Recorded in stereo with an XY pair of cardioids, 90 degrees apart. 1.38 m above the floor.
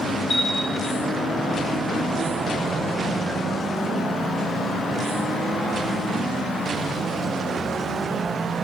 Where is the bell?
25° left, 1.5 m.